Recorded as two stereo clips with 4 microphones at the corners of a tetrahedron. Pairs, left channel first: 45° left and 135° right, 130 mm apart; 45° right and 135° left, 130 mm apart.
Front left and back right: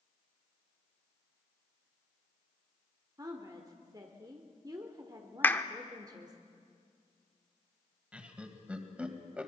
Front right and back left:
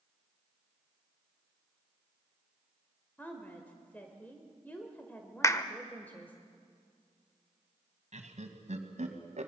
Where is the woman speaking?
110° right, 1.5 m.